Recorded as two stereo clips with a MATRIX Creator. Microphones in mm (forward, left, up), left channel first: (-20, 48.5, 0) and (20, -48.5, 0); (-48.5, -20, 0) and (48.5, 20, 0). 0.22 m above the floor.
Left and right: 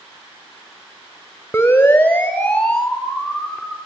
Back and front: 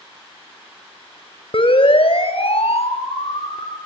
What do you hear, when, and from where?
1.5 s a siren: straight behind, 3.5 m; by 3.8 s 160° right, 5 m